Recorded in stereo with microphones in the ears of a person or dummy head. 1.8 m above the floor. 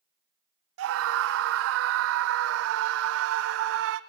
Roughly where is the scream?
Right.